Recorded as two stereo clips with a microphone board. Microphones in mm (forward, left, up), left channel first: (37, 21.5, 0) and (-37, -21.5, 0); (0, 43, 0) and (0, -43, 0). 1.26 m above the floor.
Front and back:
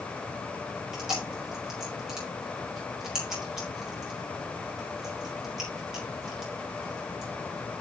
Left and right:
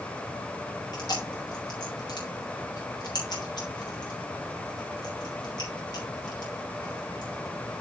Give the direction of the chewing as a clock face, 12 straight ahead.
8 o'clock.